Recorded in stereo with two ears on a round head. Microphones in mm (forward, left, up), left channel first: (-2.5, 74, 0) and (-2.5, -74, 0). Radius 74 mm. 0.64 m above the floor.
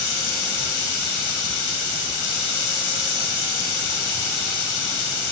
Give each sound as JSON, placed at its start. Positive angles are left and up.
{"t": 0.0, "sound": "running water", "side_deg": 75, "distance_m": 3.0}